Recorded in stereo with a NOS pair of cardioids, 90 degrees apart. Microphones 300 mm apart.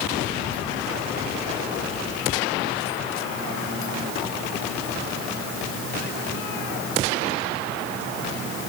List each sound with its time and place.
Only background noise.